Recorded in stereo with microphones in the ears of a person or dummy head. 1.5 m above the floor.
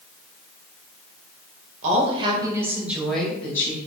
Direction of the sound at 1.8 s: 40° right (ahead or behind).